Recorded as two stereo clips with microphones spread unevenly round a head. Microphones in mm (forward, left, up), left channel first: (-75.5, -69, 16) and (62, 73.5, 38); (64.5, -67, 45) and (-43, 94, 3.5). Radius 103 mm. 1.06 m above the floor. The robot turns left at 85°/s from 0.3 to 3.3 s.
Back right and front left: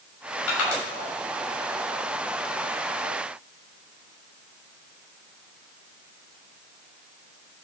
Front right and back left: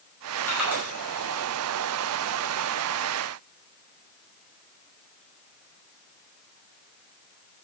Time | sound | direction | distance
0.5 | crushing | 135° right | 6.5 m